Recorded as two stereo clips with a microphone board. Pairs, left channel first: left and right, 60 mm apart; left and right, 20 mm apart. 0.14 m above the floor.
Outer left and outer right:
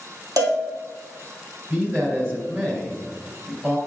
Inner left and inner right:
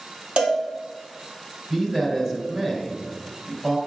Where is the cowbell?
75° right (ahead or behind), 1.8 m.